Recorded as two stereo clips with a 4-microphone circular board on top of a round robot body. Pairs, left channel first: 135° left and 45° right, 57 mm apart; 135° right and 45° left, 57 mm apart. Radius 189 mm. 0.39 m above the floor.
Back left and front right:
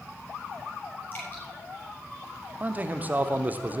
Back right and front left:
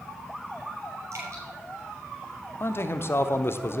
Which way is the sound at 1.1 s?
85° left.